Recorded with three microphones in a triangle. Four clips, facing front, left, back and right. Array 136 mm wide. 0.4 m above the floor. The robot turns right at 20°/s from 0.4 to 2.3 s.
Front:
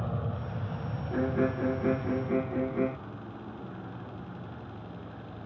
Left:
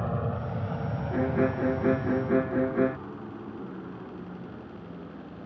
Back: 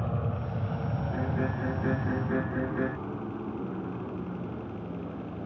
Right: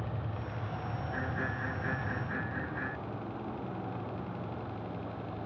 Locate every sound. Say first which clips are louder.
0.0 s an aircraft: left 8 dB, back 2 dB; 95° left; by 5.5 s 175° left
1.1 s a violin: left 13 dB, front 6 dB; 50° left; by 3.0 s 75° left